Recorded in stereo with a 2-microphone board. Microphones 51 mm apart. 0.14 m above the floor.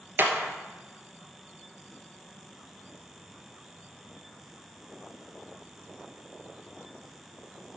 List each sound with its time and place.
0.2 s a clap: 40° right (ahead or behind), 1.6 m